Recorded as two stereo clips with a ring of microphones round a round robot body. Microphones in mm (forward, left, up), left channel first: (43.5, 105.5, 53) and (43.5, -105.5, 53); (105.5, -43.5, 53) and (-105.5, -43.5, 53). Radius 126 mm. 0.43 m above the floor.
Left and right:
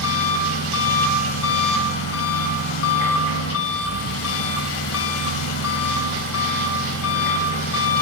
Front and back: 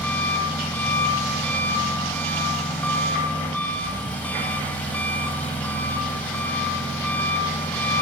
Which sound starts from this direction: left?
An engine running, at 0.0 s.